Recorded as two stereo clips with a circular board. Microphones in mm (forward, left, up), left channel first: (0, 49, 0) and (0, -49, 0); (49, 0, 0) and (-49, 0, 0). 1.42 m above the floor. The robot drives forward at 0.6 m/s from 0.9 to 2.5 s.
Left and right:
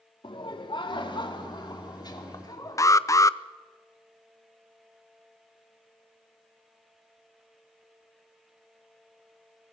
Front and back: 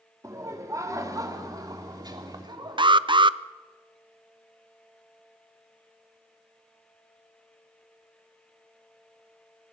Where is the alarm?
145° left, 0.5 m.